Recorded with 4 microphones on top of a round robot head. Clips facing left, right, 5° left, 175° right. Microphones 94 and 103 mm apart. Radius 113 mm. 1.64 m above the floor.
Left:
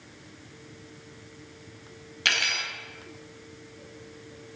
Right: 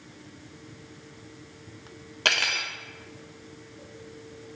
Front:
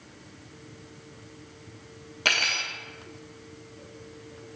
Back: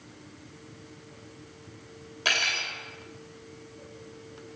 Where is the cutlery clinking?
45° right, 2 m.